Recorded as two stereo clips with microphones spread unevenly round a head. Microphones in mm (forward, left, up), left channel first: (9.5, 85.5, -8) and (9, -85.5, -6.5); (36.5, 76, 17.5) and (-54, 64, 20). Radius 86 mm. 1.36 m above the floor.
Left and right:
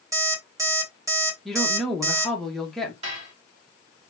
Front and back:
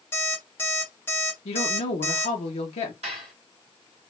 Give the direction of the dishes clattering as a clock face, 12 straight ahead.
5 o'clock.